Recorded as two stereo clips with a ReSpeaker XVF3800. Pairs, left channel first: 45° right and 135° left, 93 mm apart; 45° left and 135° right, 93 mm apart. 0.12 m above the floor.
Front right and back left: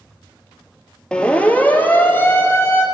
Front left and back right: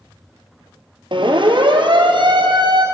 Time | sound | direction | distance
1.1 | a siren | 125° right | 2 m